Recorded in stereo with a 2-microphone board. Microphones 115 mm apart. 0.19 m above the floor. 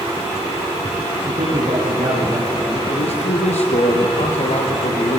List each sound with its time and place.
1.2 s a man speaking: 55° right (ahead or behind), 7 m; by 2.8 s 40° right (ahead or behind), 8 m
2.9 s a man speaking: 70° left (ahead or behind), 5.5 m